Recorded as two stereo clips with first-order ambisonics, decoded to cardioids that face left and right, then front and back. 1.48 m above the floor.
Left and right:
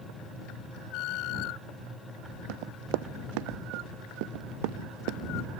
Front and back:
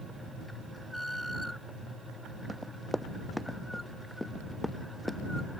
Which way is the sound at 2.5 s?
90° right.